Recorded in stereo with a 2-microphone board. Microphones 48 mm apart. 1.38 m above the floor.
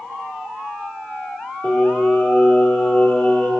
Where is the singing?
25° left (ahead or behind), 2.5 m.